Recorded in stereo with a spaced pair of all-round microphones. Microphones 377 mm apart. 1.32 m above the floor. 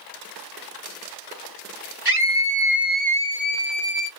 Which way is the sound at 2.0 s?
75° right (ahead or behind).